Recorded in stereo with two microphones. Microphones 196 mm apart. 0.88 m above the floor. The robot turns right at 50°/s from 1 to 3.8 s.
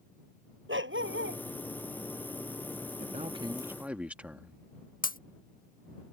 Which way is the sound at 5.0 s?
45° left (ahead or behind).